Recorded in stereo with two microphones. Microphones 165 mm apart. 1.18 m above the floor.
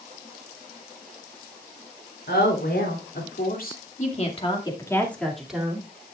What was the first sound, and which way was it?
A woman speaking, 85° left.